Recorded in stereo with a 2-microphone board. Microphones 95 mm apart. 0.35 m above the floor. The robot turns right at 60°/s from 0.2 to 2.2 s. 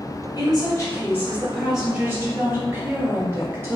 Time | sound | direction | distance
0.4 | a woman speaking | 105° left | 1.2 m